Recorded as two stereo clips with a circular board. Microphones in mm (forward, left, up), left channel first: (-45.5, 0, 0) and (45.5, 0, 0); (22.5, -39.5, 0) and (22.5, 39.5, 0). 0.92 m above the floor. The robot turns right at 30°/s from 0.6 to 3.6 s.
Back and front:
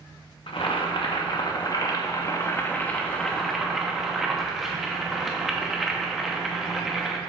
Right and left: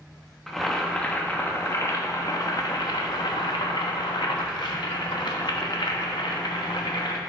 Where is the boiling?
175° right, 1.0 m; by 7.2 s 85° right, 1.0 m.